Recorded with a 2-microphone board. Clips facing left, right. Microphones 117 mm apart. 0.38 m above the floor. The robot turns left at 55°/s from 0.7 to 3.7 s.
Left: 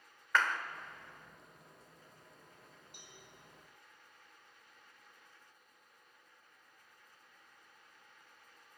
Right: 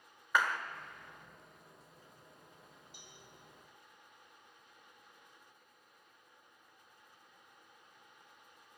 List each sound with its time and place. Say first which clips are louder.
0.3 s a clap: even; 10° right (ahead or behind), 0.6 m
2.9 s a cowbell: even; 60° left (ahead or behind), 2.5 m